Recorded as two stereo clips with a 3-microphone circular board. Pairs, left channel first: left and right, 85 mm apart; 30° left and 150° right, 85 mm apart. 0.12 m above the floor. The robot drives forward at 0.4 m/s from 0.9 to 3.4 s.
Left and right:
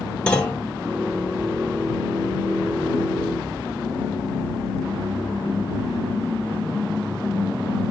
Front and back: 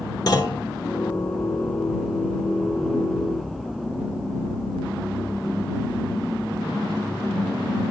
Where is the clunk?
15° left, 1.0 m.